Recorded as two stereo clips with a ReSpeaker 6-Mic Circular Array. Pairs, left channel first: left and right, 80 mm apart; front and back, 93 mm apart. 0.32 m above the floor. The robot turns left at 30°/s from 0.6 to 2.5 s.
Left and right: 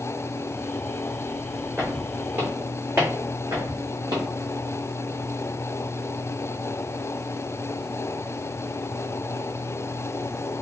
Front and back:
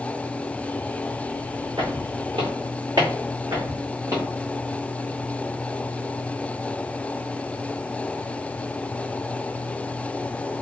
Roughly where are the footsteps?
Behind right.